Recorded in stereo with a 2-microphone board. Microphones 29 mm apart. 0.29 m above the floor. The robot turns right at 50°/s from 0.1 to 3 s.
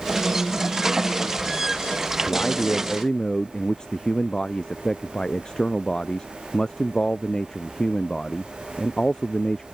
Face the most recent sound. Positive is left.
turn(degrees=155)